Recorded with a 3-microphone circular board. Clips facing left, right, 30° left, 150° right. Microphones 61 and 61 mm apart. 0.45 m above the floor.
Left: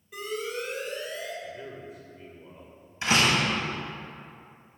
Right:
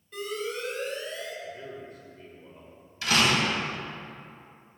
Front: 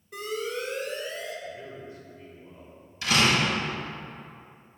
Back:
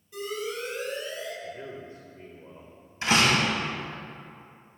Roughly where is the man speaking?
Behind.